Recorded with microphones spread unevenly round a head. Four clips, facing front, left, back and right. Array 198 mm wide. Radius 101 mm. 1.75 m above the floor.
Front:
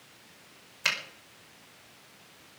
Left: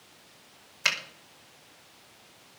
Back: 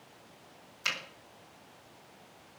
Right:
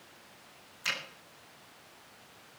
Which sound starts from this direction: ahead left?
A finger snap, at 0.8 s.